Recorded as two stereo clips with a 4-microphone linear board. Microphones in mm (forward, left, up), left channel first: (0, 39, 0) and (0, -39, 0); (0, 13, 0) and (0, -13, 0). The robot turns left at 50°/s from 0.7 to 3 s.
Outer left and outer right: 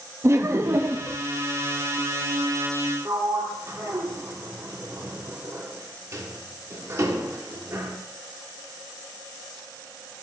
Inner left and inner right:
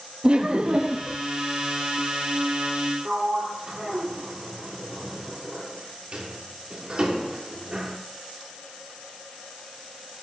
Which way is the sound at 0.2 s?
35° right (ahead or behind).